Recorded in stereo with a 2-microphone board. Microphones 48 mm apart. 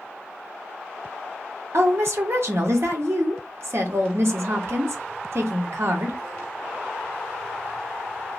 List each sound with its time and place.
1.7 s a woman speaking: 60° right (ahead or behind), 0.8 m